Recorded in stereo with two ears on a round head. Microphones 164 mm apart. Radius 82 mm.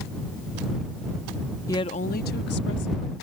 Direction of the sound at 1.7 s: 15° left (ahead or behind).